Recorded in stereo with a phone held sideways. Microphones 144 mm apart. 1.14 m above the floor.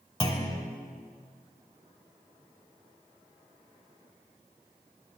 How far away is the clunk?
About 1.4 m.